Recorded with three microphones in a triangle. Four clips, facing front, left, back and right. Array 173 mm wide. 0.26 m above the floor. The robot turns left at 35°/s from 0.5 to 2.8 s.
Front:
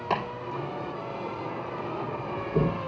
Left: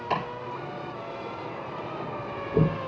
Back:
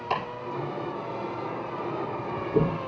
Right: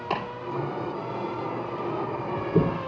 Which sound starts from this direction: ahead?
Chopping, at 0.1 s.